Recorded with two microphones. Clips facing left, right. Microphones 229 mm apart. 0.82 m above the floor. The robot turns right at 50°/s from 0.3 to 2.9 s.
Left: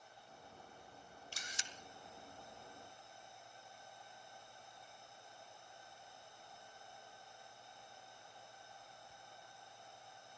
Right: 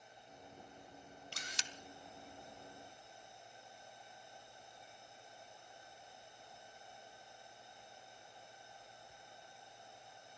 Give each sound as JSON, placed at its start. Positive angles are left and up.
{"t": 1.3, "sound": "a camera shutter", "side_deg": -65, "distance_m": 1.0}